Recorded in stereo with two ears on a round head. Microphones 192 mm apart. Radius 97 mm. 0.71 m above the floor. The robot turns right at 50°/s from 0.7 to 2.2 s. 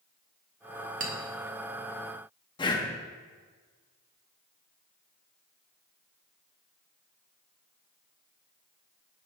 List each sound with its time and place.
1.0 s a clink: 40° right (ahead or behind), 1.2 m; by 1.1 s 45° right (ahead or behind), 1.2 m
2.6 s breathing: 20° left (ahead or behind), 0.7 m